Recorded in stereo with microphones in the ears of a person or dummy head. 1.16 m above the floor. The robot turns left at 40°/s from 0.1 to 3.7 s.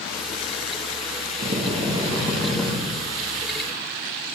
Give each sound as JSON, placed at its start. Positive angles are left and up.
{"t": 1.4, "sound": "a drill", "azimuth_deg": -140, "distance_m": 2.0}